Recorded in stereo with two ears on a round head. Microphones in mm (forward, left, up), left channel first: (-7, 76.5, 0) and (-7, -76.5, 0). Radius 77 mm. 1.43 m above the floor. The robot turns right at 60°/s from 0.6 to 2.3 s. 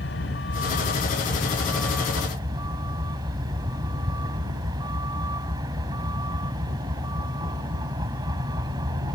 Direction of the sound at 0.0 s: 100° left.